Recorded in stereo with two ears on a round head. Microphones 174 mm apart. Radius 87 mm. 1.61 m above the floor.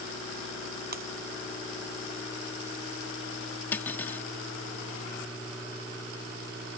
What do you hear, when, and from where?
0.9 s breaking glass: 50° right (ahead or behind)
3.7 s cutlery clinking: 10° left (ahead or behind)